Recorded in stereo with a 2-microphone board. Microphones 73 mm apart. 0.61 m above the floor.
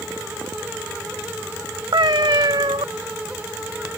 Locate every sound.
1.9 s a cat meowing: 75° right (ahead or behind)